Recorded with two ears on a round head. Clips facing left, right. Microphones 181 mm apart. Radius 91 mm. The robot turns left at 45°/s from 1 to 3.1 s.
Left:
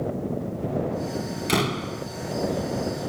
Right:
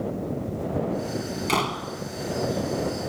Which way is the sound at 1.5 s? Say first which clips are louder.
Left 5 dB; 15° left (ahead or behind).